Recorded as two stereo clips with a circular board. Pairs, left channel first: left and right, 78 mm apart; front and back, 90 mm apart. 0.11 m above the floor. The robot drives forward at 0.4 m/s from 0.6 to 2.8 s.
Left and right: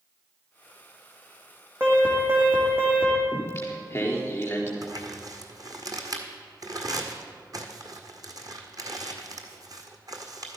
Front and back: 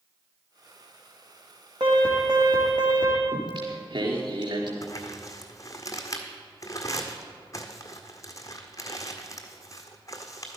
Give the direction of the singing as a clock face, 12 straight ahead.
7 o'clock.